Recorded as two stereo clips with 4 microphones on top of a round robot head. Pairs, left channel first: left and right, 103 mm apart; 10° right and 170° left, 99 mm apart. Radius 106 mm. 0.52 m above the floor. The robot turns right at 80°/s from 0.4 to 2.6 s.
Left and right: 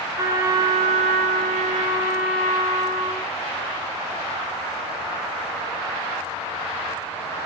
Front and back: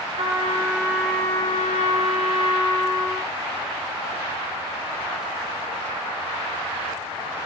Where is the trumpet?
150° right, 1.9 m; by 3.3 s 25° left, 1.9 m.